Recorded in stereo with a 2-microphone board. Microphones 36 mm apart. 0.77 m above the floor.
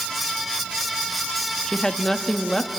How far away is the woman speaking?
About 1.2 m.